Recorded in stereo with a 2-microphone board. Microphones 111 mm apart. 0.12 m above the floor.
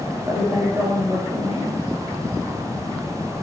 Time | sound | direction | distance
0.2 | a woman speaking | 25° right (ahead or behind) | 6.5 m